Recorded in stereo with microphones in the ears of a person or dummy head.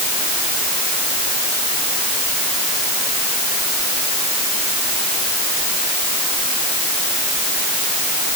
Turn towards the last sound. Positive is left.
No sound to turn to.